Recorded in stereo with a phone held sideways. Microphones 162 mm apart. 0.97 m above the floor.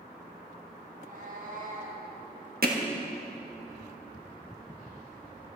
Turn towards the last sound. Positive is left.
turn(degrees=-65)  # may be behind; listen again after turning